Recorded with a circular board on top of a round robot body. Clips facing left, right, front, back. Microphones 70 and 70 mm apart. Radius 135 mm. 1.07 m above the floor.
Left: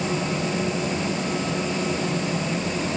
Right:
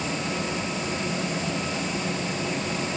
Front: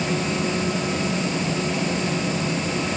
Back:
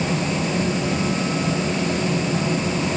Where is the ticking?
No ticking in this recording.